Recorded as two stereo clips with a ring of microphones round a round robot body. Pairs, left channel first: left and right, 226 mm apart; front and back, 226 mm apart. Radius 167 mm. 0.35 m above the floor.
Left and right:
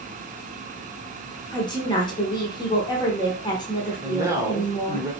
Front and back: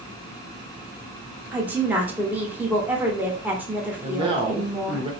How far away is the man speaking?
About 1.0 m.